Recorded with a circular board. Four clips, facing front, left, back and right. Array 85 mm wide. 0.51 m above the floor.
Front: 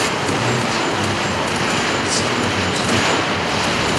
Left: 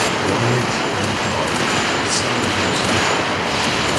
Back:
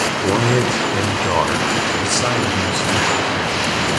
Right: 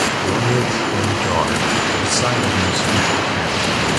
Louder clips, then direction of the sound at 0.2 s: Even, back 3 dB; 165° left.